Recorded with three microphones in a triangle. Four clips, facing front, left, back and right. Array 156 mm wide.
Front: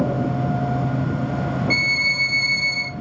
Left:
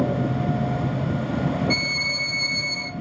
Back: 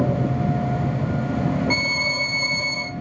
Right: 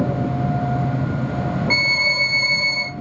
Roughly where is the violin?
Behind right.